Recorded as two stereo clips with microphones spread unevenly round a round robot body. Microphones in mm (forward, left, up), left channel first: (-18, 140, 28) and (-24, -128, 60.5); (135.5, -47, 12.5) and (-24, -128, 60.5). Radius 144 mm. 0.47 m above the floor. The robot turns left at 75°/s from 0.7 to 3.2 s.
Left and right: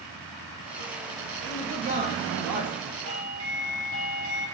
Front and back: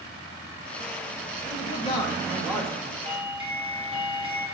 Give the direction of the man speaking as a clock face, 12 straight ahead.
12 o'clock.